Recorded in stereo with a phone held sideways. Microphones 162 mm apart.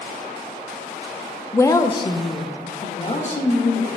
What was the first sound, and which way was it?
A woman speaking, 15° left (ahead or behind).